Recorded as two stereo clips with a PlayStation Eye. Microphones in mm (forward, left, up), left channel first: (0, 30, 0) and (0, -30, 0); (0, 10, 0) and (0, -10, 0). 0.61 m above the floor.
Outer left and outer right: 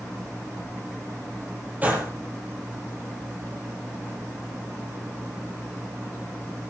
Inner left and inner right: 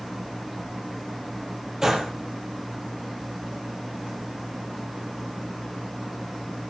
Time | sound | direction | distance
1.8 | a gunshot | 25° right (ahead or behind) | 6 m